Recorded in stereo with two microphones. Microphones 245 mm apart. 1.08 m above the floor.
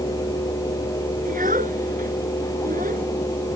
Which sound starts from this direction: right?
A child speaking, at 1.2 s.